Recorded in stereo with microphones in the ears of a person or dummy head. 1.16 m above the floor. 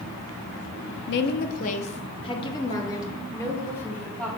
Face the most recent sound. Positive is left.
turn(degrees=10)  # may be behind; listen again after turning